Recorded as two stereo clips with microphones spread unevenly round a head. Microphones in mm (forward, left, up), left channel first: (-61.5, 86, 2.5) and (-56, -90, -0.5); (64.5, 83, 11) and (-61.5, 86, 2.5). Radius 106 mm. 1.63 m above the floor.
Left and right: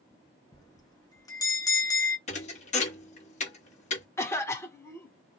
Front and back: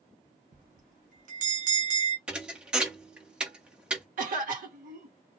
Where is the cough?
165° left, 1.6 m.